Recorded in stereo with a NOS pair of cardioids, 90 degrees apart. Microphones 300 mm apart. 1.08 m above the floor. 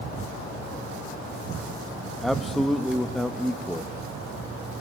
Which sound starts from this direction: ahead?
A man speaking, at 2.2 s.